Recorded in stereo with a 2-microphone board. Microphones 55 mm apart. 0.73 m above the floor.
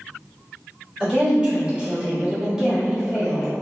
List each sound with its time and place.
1.0 s a woman speaking: 15° right (ahead or behind), 1.4 m; by 3.5 s 5° right (ahead or behind), 1.0 m